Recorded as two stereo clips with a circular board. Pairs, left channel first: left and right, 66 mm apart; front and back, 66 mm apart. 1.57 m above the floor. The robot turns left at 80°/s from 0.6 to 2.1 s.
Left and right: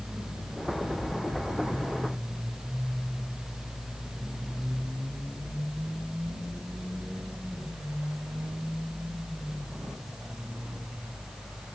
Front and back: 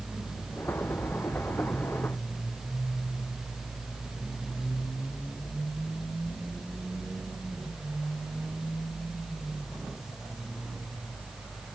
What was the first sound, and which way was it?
Only background noise.